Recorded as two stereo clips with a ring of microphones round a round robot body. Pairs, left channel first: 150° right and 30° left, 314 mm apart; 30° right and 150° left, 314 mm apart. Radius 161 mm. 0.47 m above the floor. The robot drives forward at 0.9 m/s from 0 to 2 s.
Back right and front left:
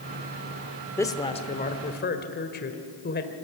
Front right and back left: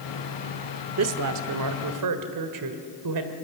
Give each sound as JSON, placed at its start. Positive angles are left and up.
{"t": 1.0, "sound": "a woman speaking", "azimuth_deg": 130, "distance_m": 1.3}